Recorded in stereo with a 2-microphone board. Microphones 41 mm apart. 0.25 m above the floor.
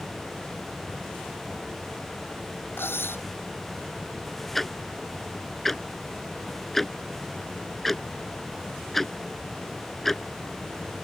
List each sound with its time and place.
2.8 s cutlery clinking: 75° left (ahead or behind)
4.5 s ticking: 10° left (ahead or behind)